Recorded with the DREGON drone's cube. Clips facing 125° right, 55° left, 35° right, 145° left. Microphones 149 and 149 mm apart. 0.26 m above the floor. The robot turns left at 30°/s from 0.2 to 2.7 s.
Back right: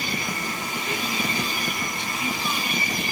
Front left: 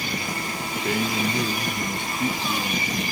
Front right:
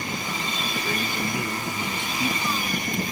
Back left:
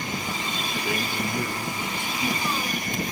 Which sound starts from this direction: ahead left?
A man speaking, at 0.8 s.